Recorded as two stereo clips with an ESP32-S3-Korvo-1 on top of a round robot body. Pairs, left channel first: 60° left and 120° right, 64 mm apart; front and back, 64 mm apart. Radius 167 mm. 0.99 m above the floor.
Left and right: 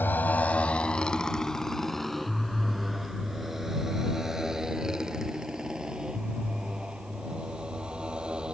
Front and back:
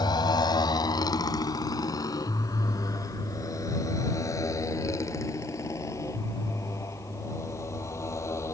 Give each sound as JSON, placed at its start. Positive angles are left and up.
{"t": 0.0, "sound": "a motorcycle", "azimuth_deg": 0}